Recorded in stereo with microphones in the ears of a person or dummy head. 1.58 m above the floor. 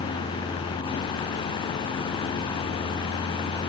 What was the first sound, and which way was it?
Only background noise.